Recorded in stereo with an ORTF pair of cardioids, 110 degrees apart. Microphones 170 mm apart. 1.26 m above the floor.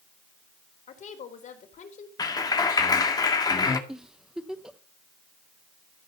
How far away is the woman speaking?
About 4 m.